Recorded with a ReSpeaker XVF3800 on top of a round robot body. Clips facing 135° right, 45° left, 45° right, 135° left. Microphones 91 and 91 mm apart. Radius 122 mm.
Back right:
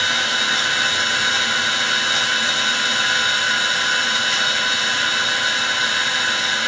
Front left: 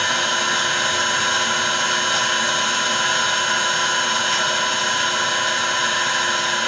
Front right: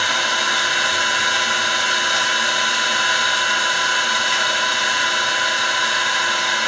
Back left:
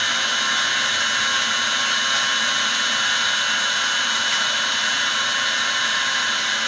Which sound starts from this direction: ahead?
An engine running, at 0.0 s.